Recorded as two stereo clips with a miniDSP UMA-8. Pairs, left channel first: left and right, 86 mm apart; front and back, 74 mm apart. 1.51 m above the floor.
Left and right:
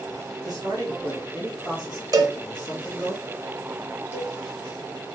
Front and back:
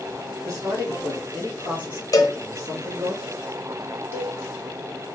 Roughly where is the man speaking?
Behind right.